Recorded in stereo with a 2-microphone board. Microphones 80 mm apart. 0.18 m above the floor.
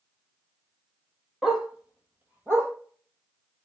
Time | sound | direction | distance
1.4 | a dog barking | 5° right (ahead or behind) | 2.5 m